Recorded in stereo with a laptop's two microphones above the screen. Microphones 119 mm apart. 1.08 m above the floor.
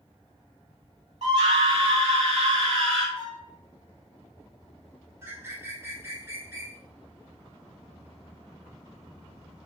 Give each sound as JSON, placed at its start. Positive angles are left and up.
{"t": 1.2, "sound": "a scream", "side_deg": -65, "distance_m": 1.3}
{"t": 3.1, "sound": "a violin", "side_deg": -60, "distance_m": 1.5}
{"t": 5.2, "sound": "a bird", "side_deg": -20, "distance_m": 1.0}